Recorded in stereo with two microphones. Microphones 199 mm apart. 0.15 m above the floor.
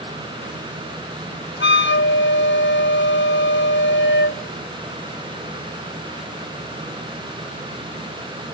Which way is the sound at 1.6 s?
60° left (ahead or behind).